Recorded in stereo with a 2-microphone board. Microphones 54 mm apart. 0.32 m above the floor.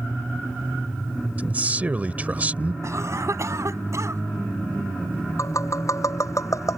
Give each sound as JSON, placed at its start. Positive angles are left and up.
{"t": 1.4, "sound": "a man speaking", "side_deg": -30}
{"t": 2.8, "sound": "a cough", "side_deg": -60}
{"t": 5.4, "sound": "tapping", "side_deg": 65}